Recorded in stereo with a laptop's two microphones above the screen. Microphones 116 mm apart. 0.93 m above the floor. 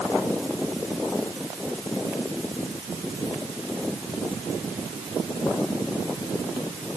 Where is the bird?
I don't hear a bird.